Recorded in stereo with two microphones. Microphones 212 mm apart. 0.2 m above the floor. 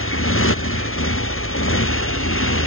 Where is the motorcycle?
85° left.